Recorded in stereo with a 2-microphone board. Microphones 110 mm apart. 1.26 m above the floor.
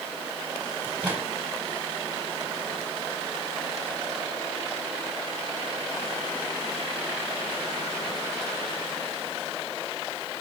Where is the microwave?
15° right (ahead or behind), 5.5 m.